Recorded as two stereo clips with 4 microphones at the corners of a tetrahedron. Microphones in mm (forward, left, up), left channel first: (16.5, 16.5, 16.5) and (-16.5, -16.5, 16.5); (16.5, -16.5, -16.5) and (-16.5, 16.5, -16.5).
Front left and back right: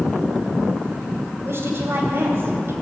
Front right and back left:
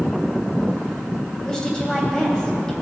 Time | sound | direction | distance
1.4 | a woman speaking | 120° right | 2.5 m